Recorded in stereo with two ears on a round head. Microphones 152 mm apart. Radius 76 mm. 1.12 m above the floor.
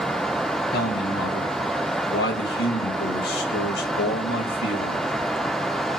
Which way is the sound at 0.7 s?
65° left (ahead or behind).